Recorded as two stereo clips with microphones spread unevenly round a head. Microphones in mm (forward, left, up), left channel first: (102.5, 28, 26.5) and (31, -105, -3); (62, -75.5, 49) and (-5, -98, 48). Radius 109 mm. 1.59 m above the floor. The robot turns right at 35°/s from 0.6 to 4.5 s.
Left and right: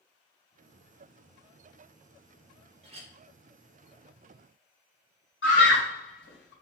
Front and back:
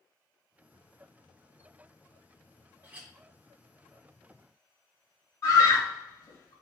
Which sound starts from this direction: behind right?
A clink, at 2.8 s.